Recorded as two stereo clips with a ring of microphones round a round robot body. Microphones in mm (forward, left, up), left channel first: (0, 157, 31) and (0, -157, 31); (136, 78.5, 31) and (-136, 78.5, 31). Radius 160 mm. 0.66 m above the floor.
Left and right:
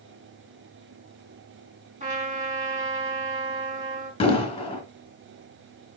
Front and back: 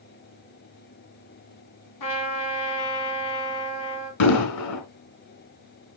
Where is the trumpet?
20° right, 3 m.